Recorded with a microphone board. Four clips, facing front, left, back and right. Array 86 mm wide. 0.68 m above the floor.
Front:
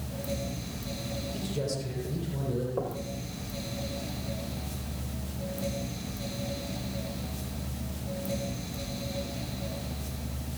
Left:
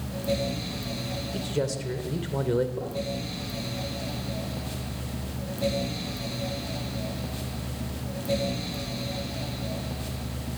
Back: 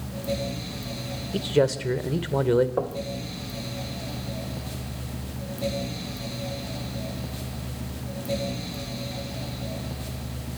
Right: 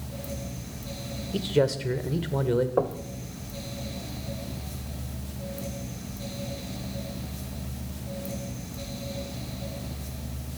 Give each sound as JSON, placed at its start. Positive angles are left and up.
{"t": 1.3, "sound": "a man speaking", "azimuth_deg": -150, "distance_m": 3.0}
{"t": 2.8, "sound": "knocking", "azimuth_deg": -120, "distance_m": 2.5}